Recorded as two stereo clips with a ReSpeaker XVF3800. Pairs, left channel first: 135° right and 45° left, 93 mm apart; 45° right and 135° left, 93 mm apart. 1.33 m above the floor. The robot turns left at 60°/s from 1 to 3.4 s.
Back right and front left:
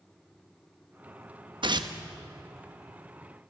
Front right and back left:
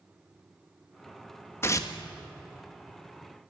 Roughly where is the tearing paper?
Ahead.